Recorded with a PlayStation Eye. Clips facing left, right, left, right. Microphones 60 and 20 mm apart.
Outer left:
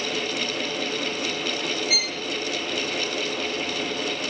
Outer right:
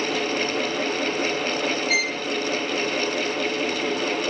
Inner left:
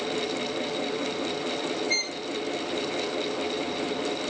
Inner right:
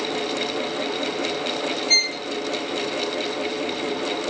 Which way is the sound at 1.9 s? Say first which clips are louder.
Outer right 5 dB, inner right 12 dB; 60° right (ahead or behind).